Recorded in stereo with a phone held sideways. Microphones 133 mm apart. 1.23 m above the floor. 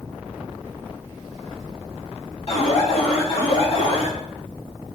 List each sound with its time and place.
2.5 s an alarm: 55° left (ahead or behind), 3 m